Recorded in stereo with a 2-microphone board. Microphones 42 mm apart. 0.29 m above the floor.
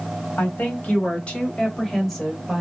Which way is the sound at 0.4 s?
45° left (ahead or behind).